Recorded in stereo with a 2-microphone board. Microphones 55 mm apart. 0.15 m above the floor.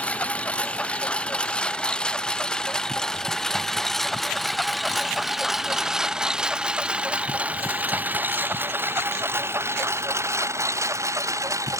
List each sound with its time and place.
0.0 s a lawn mower: 25° left (ahead or behind); by 11.8 s 70° right (ahead or behind)